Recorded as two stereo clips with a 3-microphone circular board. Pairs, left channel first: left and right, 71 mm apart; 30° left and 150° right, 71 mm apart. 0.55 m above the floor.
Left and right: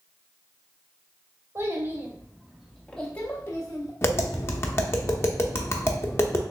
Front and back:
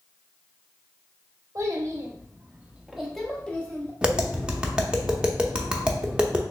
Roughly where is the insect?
No insect in this recording.